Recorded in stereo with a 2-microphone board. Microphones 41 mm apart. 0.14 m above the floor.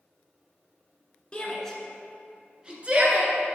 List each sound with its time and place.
1.3 s a shout: 20° left (ahead or behind), 1.4 m; by 3.6 s 45° right (ahead or behind), 1.8 m